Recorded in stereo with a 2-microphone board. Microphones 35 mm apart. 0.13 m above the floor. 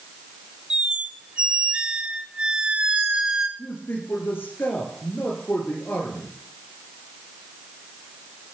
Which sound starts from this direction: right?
A squeak, at 0.7 s.